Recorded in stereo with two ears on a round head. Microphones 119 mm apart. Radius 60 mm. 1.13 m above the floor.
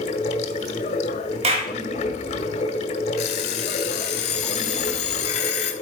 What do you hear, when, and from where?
0.0 s running water: 50° left (ahead or behind), 1.1 m
1.4 s a clap: 50° right (ahead or behind), 1.6 m
3.2 s an alarm clock: 55° left (ahead or behind), 2.5 m